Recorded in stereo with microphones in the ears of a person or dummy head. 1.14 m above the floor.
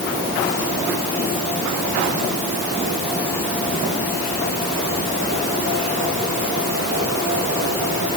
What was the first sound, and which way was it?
Only background noise.